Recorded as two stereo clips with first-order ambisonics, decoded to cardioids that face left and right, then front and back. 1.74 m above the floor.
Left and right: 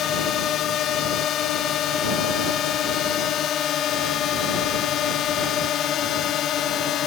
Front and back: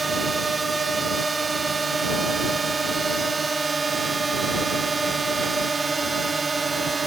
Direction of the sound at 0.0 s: 115° left.